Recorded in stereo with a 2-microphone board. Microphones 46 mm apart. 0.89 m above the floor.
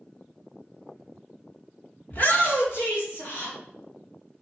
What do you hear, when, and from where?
2.1 s a shout: 45° left (ahead or behind), 1.2 m; by 3.5 s 70° left (ahead or behind), 1.6 m